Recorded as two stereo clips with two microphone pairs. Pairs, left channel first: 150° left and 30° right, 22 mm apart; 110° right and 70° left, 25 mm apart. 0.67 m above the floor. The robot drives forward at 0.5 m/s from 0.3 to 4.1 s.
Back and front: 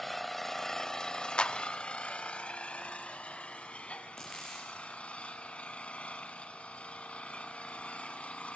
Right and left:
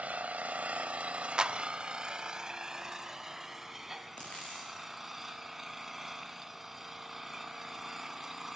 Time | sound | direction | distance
0.0 | an engine running | 70° left | 0.9 m
1.4 | a clap | 120° left | 0.7 m
4.2 | a dropped coin | 135° right | 10 m